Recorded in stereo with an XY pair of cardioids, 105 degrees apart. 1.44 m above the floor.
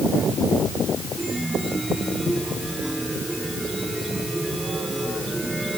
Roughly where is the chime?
Ahead.